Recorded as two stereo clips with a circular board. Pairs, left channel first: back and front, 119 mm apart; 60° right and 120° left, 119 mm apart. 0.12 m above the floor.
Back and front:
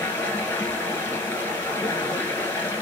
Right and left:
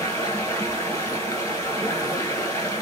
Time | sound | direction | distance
0.0 | running water | 110° right | 0.8 m